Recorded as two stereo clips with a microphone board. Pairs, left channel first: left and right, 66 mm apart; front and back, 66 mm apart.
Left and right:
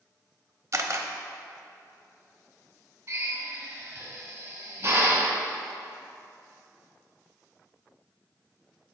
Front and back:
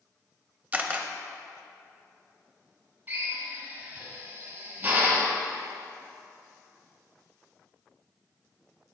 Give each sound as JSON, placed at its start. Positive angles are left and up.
{"t": 0.7, "sound": "a camera shutter", "azimuth_deg": -120, "distance_m": 0.6}
{"t": 3.1, "sound": "a drill", "azimuth_deg": -135, "distance_m": 1.8}